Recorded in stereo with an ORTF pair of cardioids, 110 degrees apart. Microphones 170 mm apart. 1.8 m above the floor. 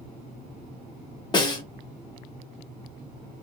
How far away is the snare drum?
About 0.9 m.